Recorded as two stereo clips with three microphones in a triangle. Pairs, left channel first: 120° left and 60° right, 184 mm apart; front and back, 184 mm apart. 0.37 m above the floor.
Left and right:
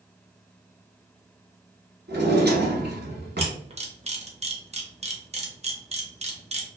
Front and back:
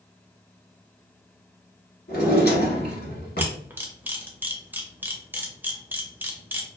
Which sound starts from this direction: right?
A camera shutter, at 3.4 s.